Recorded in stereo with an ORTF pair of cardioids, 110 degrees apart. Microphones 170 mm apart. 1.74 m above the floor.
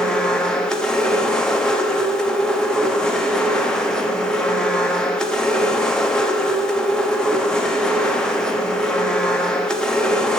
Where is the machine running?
5° left, 1.0 m.